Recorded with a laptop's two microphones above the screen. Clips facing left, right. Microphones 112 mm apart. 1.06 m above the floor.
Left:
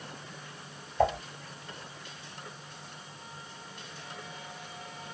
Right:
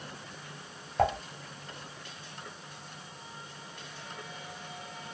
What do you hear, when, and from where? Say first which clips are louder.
1.0 s dishes clattering: left 1 dB; 85° right, 1.4 m